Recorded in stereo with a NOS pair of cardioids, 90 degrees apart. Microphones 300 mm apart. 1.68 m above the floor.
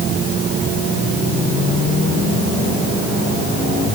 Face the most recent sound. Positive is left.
No sound to turn to.